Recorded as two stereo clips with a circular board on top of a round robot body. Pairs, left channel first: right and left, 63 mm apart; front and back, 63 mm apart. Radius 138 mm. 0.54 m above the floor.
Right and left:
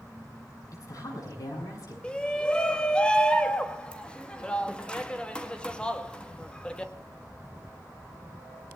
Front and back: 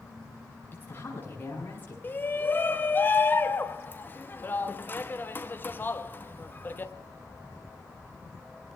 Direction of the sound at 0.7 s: 60° right.